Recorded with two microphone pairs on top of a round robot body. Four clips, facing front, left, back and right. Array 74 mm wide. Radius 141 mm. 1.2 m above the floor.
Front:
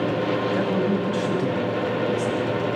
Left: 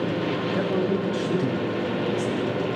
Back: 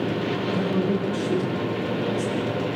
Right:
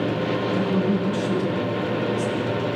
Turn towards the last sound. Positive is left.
turn(degrees=30)